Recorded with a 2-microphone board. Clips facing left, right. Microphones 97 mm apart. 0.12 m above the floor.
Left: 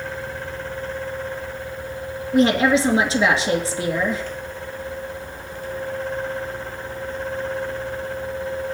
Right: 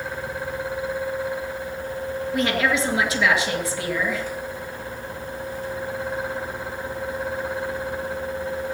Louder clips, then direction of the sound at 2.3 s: Left 7 dB; 30° left (ahead or behind).